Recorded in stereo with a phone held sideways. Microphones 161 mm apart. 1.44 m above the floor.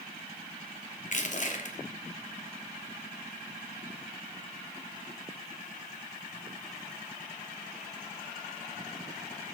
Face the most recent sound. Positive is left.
turn(degrees=50)  # may be behind; listen again after turning